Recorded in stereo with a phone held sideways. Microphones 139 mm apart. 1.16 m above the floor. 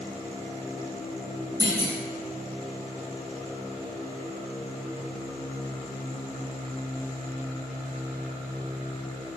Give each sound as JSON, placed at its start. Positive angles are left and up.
{"t": 1.6, "sound": "a clunk", "side_deg": -25, "distance_m": 0.9}